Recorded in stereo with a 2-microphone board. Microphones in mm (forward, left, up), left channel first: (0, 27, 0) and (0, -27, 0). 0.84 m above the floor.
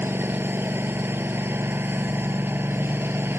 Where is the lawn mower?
45° right (ahead or behind).